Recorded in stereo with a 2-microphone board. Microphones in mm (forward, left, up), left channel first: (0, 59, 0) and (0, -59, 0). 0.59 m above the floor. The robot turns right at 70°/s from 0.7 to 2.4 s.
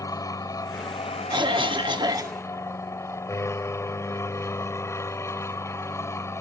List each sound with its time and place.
0.0 s an aircraft: 35° left; by 6.4 s 155° left
1.3 s a cough: 110° right; by 2.4 s 35° right